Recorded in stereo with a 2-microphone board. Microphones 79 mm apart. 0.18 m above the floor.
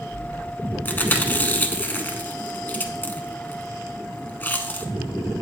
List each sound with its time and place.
0.8 s chewing: 25° left (ahead or behind), 0.6 m